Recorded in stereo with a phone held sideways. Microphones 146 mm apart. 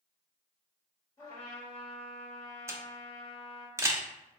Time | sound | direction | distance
1.2 | a trumpet | 25° left (ahead or behind) | 1.4 m
2.7 | a camera shutter | 20° right (ahead or behind) | 0.6 m